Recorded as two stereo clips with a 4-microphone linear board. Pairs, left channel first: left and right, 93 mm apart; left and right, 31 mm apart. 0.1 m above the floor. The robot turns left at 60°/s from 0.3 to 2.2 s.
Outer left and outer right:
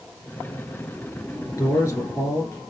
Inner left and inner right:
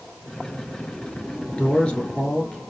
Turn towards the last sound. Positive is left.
turn(degrees=45)